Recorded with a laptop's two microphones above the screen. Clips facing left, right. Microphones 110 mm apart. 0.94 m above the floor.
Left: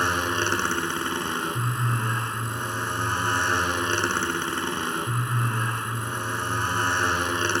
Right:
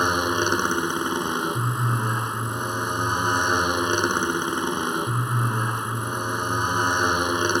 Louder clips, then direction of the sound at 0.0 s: Right 3 dB; 20° right (ahead or behind).